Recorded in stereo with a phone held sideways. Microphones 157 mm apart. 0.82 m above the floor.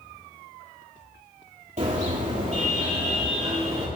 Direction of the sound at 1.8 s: 55° right (ahead or behind).